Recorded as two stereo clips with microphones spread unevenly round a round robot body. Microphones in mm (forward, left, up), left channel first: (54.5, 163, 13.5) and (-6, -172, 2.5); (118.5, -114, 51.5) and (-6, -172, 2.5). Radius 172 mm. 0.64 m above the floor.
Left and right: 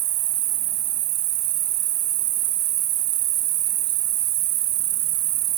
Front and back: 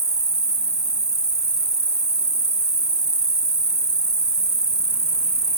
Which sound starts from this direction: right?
An insect, at 0.0 s.